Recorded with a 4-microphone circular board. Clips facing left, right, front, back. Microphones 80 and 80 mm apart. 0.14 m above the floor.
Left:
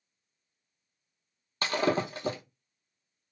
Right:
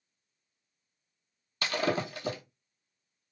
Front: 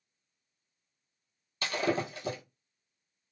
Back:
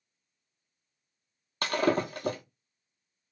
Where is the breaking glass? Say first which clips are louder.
Left 3 dB, back 4 dB; 145° left, 0.7 m.